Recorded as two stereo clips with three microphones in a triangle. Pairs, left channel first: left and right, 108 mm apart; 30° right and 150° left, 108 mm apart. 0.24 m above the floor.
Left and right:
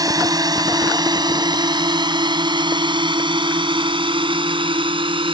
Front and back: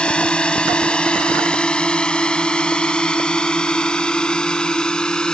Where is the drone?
105° right; by 5.3 s 110° right.